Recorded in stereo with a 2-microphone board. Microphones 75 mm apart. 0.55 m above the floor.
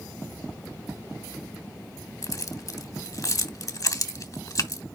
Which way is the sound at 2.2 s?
50° left (ahead or behind).